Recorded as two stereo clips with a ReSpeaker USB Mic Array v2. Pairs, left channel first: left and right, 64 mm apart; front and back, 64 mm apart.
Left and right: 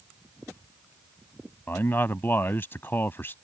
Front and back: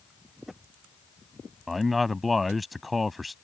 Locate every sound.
1.7 s a man speaking: 90° left